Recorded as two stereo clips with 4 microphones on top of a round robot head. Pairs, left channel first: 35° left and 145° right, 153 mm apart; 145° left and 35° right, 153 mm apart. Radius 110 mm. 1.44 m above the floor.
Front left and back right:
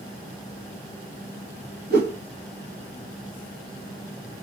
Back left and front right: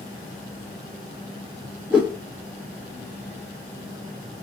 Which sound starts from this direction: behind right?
A whoosh, at 1.9 s.